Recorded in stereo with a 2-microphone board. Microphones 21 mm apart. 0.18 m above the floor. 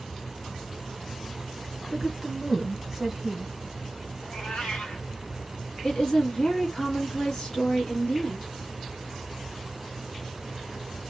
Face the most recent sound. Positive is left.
turn(degrees=35)  # may be behind; listen again after turning